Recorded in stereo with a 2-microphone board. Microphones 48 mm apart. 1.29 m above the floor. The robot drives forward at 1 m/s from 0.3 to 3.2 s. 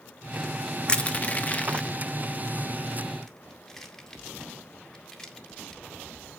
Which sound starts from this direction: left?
Crushing, at 0.9 s.